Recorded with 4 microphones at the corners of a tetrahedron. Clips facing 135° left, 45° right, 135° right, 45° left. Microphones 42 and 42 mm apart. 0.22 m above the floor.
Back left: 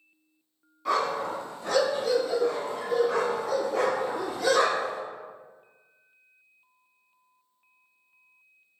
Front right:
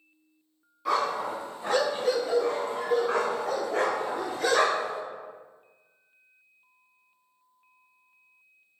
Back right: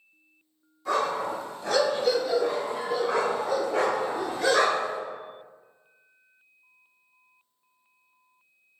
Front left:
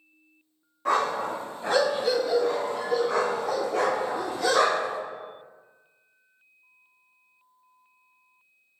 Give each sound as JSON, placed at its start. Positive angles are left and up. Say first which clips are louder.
{"t": 0.8, "sound": "a dog barking", "louder": "even, front left 2 dB", "azimuth_deg": 45, "distance_m": 0.8}